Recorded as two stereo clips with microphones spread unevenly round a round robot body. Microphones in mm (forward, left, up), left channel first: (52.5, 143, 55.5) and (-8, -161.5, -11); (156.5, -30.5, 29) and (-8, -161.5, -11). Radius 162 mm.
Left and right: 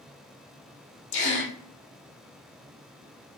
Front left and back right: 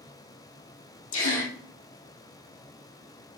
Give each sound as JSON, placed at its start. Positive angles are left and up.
{"t": 1.1, "sound": "a gasp", "azimuth_deg": 30, "distance_m": 3.0}